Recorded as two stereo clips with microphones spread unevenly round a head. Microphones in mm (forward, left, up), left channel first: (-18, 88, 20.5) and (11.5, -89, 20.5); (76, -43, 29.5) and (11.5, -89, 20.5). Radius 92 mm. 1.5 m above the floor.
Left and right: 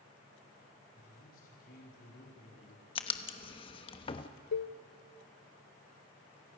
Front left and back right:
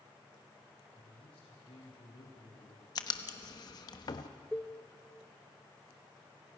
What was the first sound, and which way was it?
A man speaking, 55° left.